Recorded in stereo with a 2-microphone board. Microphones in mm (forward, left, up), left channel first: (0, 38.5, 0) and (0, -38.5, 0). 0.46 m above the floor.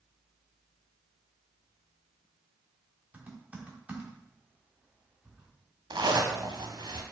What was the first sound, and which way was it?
Typing on a keyboard, 20° right (ahead or behind).